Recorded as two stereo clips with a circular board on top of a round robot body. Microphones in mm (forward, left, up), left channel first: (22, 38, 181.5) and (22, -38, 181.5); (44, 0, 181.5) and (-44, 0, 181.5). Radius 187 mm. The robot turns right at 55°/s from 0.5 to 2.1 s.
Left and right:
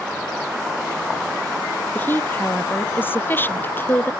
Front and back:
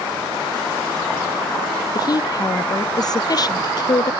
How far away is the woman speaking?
About 0.8 m.